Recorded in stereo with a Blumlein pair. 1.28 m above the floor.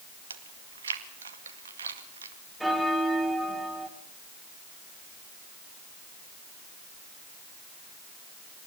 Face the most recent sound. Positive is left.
turn(degrees=0)